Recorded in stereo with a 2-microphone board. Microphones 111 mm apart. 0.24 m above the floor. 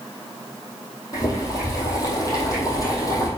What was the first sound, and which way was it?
Boiling, 35° left (ahead or behind).